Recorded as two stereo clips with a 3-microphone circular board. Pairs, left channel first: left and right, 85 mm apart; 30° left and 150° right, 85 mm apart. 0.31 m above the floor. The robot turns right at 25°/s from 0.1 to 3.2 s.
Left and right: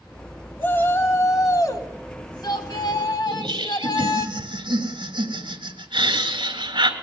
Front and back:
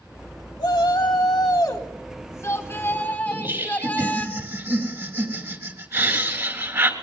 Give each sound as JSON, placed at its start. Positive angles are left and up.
{"t": 0.6, "sound": "a shout", "azimuth_deg": 30, "distance_m": 2.0}
{"t": 3.3, "sound": "laughter", "azimuth_deg": -95, "distance_m": 3.5}